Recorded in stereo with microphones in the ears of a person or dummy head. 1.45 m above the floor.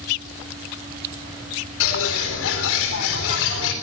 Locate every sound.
1.8 s a bird: 75° left (ahead or behind), 3.5 m